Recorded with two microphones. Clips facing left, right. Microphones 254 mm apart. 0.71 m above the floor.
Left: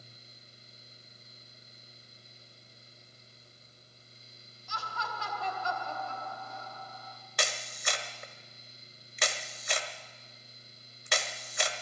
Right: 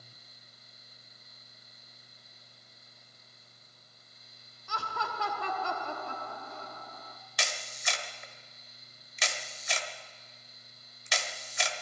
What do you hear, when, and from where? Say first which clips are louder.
4.7 s laughter: right 3 dB; 60° right (ahead or behind), 1.3 m
7.4 s a camera shutter: left 4 dB; 60° left (ahead or behind), 1.2 m